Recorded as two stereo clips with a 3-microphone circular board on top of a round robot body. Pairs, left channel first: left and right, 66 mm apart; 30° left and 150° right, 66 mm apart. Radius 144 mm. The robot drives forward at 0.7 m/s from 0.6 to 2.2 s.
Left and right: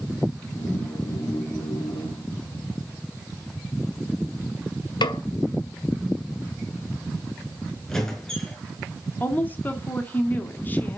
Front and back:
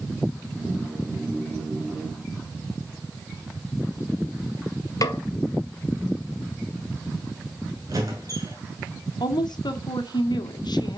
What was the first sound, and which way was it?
A snare drum, 70° left.